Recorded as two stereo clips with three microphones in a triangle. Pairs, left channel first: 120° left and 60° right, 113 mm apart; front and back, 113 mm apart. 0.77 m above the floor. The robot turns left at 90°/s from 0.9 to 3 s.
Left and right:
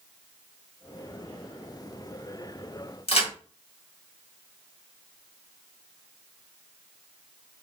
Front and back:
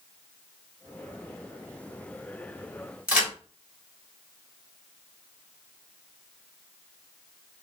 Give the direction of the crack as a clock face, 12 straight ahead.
9 o'clock.